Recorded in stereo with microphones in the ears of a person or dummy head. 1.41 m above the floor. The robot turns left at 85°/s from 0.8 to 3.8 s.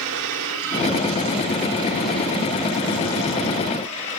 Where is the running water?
70° right, 1.6 m; by 4.2 s 35° left, 1.6 m.